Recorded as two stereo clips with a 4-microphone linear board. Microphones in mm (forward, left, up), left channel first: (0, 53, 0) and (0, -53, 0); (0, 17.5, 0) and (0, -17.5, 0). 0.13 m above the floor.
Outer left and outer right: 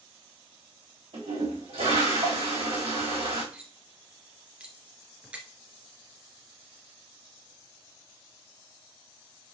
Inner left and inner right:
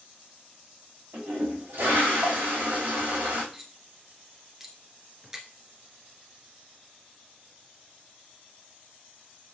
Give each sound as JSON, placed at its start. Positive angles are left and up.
{"t": 1.1, "sound": "a toilet flushing", "side_deg": -70, "distance_m": 3.5}
{"t": 3.5, "sound": "cutlery clinking", "side_deg": -10, "distance_m": 1.4}